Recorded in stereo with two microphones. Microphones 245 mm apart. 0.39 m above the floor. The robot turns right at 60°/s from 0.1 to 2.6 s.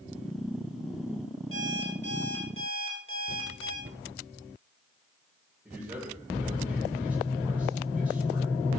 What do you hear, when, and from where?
1.5 s an alarm clock: 60° left, 5.5 m; by 3.7 s 125° left, 5.5 m
3.8 s a cupboard door: 55° right (ahead or behind), 2.5 m
5.7 s a man speaking: 5° right (ahead or behind), 9 m